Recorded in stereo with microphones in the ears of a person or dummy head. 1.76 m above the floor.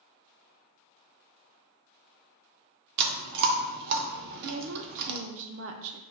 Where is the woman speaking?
65° right (ahead or behind), 0.6 m.